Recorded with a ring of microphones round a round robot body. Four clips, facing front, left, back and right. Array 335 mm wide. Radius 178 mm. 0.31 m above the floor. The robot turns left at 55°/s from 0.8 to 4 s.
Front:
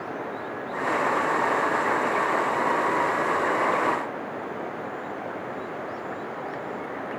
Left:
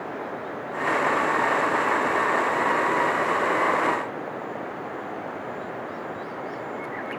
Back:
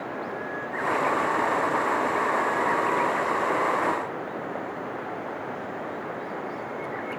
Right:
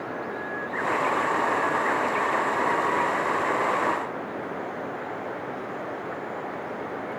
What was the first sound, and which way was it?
Only background noise.